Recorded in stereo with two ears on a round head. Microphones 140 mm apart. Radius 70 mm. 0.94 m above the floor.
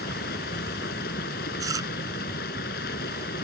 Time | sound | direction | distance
0.0 | running water | 70° left (ahead or behind) | ?
1.6 | chewing | 25° right (ahead or behind) | ?